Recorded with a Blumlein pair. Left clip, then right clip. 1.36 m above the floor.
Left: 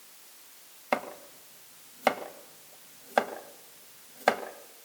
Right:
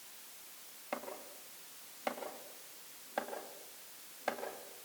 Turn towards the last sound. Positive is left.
turn(degrees=40)